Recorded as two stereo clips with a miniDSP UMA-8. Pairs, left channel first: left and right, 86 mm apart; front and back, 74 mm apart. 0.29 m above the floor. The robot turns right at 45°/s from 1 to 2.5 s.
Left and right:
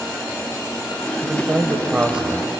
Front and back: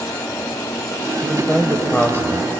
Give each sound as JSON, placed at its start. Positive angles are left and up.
{"t": 1.2, "sound": "a man speaking", "azimuth_deg": -70, "distance_m": 1.6}